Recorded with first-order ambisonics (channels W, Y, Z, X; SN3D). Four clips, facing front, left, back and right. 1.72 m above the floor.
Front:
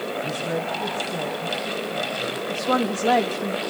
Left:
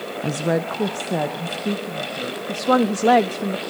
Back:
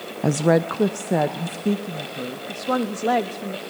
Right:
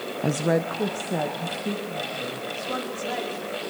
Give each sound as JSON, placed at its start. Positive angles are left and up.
{"t": 0.2, "sound": "a woman speaking", "azimuth_deg": -170, "distance_m": 0.6}
{"t": 2.5, "sound": "a woman speaking", "azimuth_deg": 85, "distance_m": 0.9}